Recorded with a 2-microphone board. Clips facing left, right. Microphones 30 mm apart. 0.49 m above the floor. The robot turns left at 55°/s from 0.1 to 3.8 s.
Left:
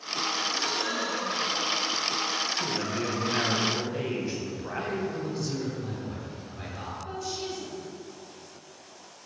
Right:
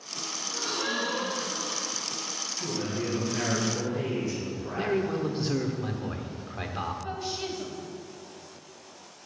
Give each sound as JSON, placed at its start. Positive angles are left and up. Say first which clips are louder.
{"t": 0.4, "sound": "a gasp", "louder": "left 3 dB", "azimuth_deg": 10, "distance_m": 1.2}
{"t": 2.6, "sound": "a man speaking", "louder": "left 2 dB", "azimuth_deg": 95, "distance_m": 3.0}
{"t": 4.8, "sound": "a man speaking", "louder": "right 5 dB", "side_deg": -45, "distance_m": 1.2}
{"t": 7.0, "sound": "a woman speaking", "louder": "right 1 dB", "side_deg": -35, "distance_m": 3.0}